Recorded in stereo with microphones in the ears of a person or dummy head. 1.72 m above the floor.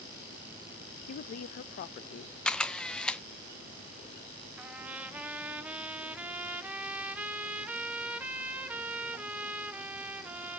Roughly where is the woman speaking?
Left.